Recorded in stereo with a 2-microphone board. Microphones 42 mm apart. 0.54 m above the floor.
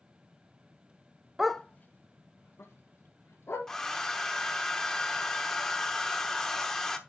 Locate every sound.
1.4 s a dog barking: 10° right (ahead or behind), 0.5 m; by 3.6 s 85° left, 3 m
3.7 s a hair dryer: 10° left (ahead or behind), 1.1 m